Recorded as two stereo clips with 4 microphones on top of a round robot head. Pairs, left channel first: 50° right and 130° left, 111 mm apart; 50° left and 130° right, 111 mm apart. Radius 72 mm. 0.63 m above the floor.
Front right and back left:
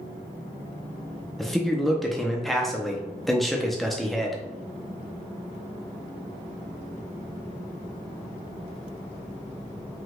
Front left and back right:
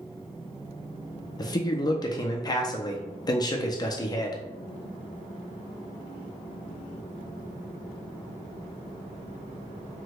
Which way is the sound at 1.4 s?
35° left.